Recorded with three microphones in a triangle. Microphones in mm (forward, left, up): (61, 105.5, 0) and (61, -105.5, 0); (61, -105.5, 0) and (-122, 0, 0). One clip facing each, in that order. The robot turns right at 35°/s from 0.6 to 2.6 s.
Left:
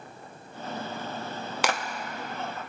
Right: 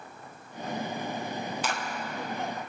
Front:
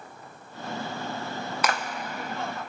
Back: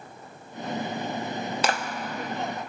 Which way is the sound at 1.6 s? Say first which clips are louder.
Left 9 dB, even; 90° left.